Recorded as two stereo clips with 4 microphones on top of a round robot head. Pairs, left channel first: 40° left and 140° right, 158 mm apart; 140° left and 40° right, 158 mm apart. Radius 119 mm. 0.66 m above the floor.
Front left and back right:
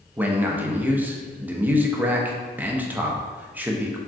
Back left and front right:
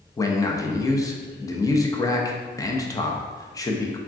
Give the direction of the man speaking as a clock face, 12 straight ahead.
7 o'clock.